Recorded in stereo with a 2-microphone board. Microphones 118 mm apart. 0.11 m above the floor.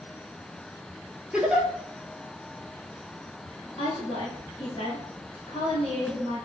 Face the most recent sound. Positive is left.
turn(degrees=45)  # may be behind; listen again after turning